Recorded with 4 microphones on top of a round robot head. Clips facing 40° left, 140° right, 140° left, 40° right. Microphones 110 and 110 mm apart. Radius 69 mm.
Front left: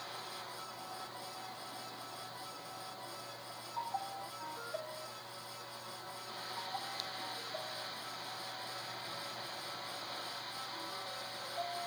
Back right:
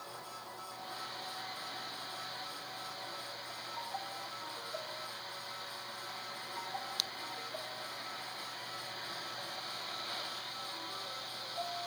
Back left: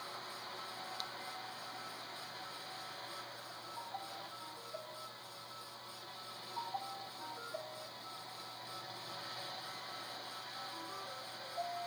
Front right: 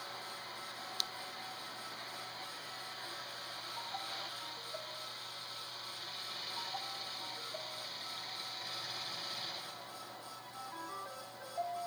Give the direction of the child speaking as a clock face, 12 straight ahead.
No child speaking in this recording.